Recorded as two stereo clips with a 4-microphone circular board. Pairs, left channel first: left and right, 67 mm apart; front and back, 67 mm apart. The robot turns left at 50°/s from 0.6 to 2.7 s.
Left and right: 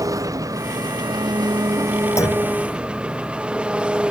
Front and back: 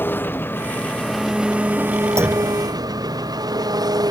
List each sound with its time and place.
0.0 s an engine running: 60° right; by 4.1 s 165° right
2.2 s a clunk: 135° left; by 2.5 s 120° left